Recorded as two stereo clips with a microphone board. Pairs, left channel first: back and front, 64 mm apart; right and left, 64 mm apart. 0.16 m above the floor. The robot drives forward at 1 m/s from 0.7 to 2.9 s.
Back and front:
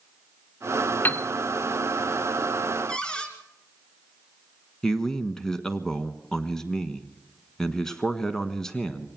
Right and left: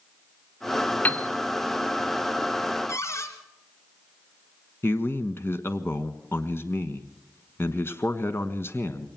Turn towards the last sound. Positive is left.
turn(degrees=-100)